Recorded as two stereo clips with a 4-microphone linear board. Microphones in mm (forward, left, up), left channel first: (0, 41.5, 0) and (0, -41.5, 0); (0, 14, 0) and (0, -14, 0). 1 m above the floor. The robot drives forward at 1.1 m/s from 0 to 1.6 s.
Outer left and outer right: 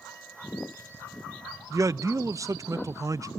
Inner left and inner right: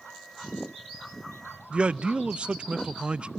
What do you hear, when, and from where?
1.7 s a man speaking: 40° right (ahead or behind), 0.5 m